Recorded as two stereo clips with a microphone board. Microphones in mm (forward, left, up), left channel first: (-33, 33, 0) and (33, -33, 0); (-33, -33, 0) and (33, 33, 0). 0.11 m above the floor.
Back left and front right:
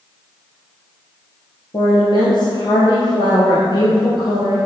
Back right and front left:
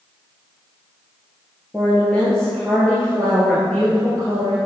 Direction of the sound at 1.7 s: 150° left.